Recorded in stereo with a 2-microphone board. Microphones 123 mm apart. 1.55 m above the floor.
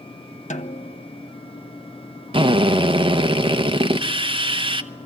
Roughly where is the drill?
Right.